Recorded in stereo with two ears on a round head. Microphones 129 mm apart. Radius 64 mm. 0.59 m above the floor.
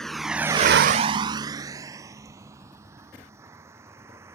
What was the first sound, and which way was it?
A vehicle, 5° left (ahead or behind).